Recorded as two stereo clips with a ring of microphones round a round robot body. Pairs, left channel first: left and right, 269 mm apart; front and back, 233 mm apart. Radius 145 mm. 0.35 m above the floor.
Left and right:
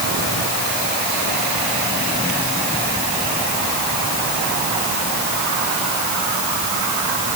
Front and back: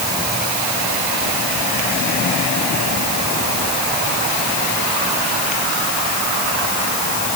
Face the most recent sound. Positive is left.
No sound to turn to.